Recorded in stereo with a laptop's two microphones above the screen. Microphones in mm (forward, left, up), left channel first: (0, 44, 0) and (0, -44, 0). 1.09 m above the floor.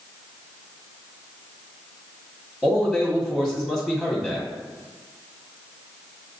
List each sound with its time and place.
2.6 s a man speaking: 5° right (ahead or behind), 1.8 m